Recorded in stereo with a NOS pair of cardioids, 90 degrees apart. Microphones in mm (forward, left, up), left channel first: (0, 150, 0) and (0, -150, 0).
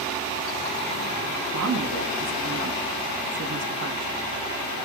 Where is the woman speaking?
70° right, 1.9 m.